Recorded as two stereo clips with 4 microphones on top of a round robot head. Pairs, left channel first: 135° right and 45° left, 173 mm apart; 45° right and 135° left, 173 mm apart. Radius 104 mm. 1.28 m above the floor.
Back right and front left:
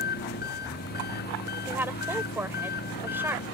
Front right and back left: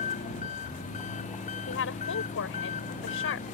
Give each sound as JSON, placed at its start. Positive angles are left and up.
{"t": 0.0, "sound": "an engine running", "azimuth_deg": -100}
{"t": 1.7, "sound": "a woman speaking", "azimuth_deg": -35}